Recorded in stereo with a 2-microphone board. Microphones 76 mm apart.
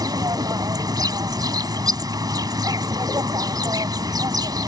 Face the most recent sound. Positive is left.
turn(degrees=-60)  # may be behind; listen again after turning